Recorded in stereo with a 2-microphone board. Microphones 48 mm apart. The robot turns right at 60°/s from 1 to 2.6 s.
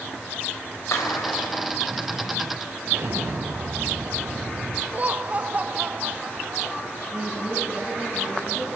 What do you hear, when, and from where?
0.9 s a clap: 90° left, 3.5 m; by 1.6 s 130° left, 3.5 m
2.9 s an explosion: 80° right, 3 m
4.9 s laughter: 30° right (ahead or behind), 0.6 m
7.1 s a woman speaking: 30° right (ahead or behind), 8.5 m